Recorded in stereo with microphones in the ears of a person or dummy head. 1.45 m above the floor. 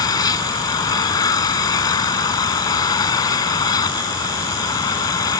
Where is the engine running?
20° left (ahead or behind).